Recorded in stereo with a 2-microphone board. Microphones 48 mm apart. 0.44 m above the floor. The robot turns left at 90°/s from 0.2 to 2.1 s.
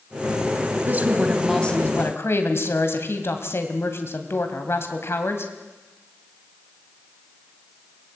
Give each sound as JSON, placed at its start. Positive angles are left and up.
{"t": 0.9, "sound": "a woman speaking", "azimuth_deg": -135, "distance_m": 2.0}